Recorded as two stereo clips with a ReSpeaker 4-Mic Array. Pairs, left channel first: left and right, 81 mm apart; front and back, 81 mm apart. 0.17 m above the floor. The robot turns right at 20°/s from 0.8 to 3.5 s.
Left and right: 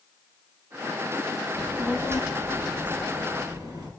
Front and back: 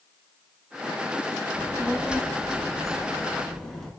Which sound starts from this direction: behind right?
A child speaking, at 1.5 s.